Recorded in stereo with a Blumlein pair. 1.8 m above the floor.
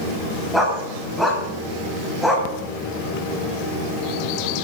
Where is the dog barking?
5° left, 6 m.